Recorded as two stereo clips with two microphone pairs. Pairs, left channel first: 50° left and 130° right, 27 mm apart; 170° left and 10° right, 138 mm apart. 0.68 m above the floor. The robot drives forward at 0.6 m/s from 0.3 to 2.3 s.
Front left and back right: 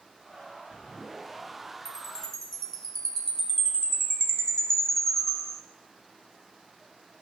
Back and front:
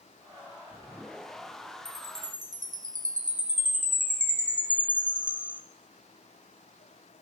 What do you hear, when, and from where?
1.9 s a chime: 25° right, 4 m